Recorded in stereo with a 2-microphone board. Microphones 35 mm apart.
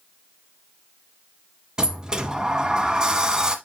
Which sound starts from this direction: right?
A sliding door, at 1.8 s.